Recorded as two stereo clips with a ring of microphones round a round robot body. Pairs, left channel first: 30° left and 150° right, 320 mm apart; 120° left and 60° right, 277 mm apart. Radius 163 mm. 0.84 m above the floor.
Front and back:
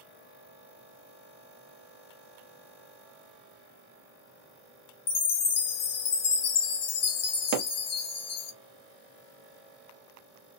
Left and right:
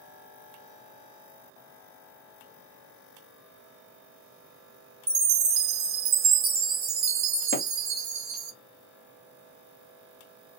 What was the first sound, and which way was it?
A chime, 15° right.